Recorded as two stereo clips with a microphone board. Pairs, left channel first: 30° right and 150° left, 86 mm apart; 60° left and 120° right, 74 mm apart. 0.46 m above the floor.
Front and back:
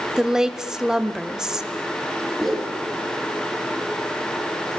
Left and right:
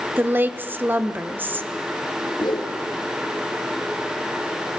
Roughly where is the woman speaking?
Behind right.